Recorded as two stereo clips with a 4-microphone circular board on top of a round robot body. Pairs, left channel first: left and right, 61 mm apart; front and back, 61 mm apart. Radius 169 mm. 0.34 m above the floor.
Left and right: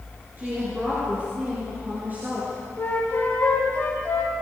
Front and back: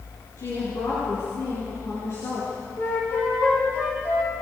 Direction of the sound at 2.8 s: 35° left.